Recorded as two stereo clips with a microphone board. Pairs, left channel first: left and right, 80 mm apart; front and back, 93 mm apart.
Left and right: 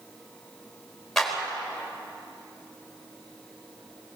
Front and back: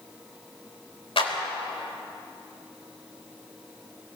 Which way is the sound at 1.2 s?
5° left.